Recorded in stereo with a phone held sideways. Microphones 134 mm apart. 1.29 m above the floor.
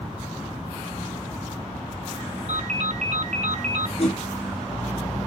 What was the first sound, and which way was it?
A ringtone, 60° right (ahead or behind).